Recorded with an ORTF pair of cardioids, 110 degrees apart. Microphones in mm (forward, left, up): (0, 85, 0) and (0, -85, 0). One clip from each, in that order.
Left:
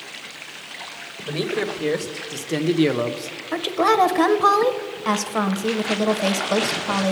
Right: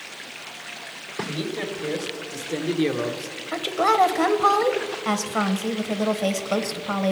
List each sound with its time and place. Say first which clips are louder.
1.3 s a man speaking: left 7 dB; 40° left, 1.5 m; by 3.4 s 10° left, 0.5 m
3.5 s a woman speaking: left 2 dB; 10° left, 0.9 m